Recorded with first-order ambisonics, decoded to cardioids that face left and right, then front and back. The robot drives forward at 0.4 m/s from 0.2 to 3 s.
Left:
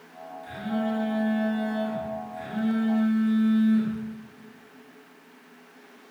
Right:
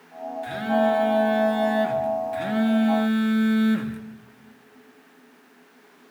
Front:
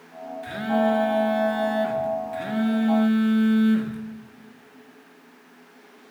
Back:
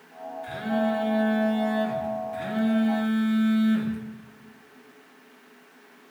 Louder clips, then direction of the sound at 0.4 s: Right 9 dB, front 4 dB; 45° right.